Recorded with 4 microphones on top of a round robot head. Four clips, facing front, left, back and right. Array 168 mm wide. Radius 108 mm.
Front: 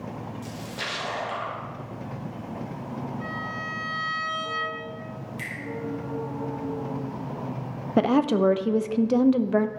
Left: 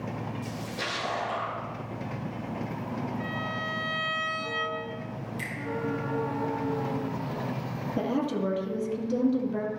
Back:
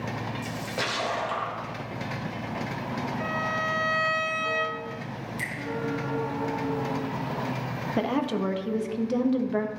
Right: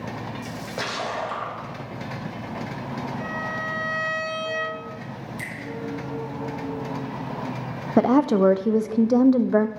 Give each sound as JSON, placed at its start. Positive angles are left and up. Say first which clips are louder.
{"t": 0.4, "sound": "a splash", "louder": "right 4 dB, back 3 dB", "azimuth_deg": -120, "distance_m": 2.0}
{"t": 3.2, "sound": "a violin", "louder": "right 3 dB, back 4 dB", "azimuth_deg": -155, "distance_m": 2.0}
{"t": 5.4, "sound": "a finger snap", "louder": "right 1 dB, back 2 dB", "azimuth_deg": -120, "distance_m": 3.5}
{"t": 8.0, "sound": "a woman speaking", "louder": "right 11 dB, front 7 dB", "azimuth_deg": -65, "distance_m": 0.5}